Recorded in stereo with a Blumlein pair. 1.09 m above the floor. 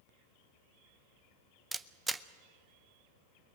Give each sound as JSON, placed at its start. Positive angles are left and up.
{"t": 1.7, "sound": "a camera shutter", "azimuth_deg": -10, "distance_m": 0.7}